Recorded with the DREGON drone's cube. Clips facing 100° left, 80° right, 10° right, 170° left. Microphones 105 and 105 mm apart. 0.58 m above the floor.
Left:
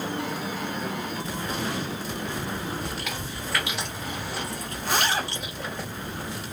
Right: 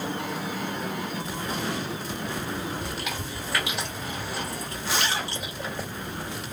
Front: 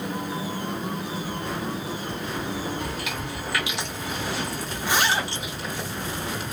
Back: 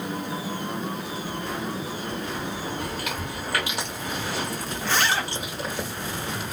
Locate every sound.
2.8 s chewing: 165° right, 1.4 m
4.8 s a zipper: 65° left, 0.6 m